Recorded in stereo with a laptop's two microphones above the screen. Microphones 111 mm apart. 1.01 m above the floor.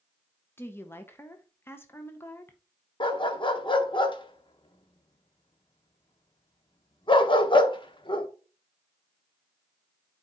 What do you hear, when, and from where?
0.6 s a woman speaking: 20° left (ahead or behind), 0.7 m
3.0 s a dog barking: 45° left (ahead or behind), 0.7 m